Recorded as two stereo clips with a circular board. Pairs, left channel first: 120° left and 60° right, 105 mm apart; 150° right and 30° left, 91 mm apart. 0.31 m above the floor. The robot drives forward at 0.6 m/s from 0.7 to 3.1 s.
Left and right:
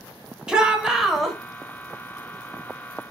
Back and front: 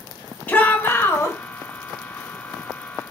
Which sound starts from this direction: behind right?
A shout, at 0.5 s.